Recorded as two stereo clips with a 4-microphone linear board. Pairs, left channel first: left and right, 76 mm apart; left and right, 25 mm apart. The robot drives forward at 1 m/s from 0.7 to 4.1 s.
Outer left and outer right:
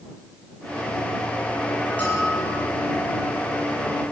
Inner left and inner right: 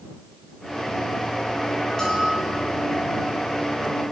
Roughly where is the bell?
Left.